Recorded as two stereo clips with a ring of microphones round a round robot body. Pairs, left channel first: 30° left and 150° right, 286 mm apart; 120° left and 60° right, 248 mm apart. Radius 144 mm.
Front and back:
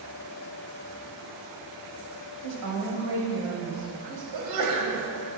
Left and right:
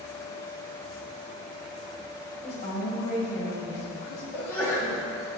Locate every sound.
2.4 s a woman speaking: 175° right, 1.9 m; by 4.2 s 150° left, 2.5 m
4.3 s a sneeze: 155° right, 1.9 m